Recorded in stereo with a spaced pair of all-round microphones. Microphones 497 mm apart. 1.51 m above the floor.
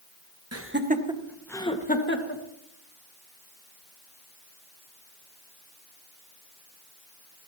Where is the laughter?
30° right (ahead or behind), 1.5 m; by 2.4 s 25° left (ahead or behind), 2 m.